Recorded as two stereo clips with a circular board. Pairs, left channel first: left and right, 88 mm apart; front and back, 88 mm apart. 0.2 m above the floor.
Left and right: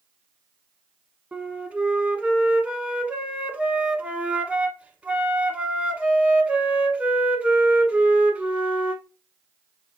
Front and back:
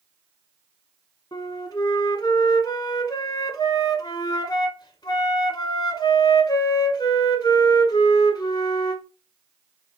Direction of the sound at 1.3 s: 20° right.